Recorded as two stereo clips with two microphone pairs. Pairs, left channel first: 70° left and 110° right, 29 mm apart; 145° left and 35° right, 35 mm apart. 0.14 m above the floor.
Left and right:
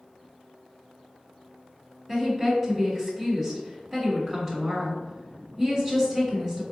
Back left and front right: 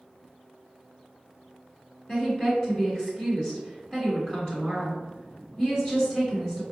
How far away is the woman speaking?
About 1.7 m.